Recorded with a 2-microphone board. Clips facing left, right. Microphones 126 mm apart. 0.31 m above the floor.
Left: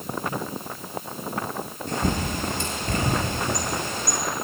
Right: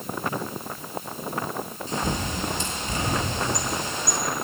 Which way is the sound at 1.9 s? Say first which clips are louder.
Left 3 dB; 55° left (ahead or behind).